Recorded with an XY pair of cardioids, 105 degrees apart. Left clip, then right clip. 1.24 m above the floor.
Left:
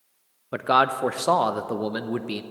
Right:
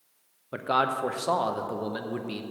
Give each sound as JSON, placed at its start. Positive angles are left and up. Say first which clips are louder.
{"t": 0.5, "sound": "a man speaking", "louder": "left 5 dB", "azimuth_deg": 40, "distance_m": 0.5}